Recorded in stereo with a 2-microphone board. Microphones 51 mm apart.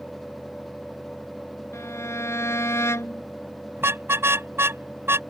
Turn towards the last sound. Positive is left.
turn(degrees=-55)  # may be behind; listen again after turning